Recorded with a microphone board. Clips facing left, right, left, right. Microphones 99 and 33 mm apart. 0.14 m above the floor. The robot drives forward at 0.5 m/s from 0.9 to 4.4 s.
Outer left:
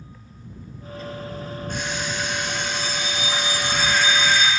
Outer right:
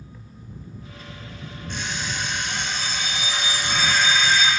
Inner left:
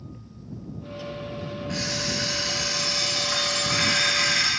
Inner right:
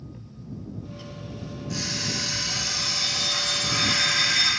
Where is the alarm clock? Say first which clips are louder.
Outer left 1 dB, inner left 1 dB; 45° left (ahead or behind), 6 m; by 4.5 s 55° left (ahead or behind), 5 m.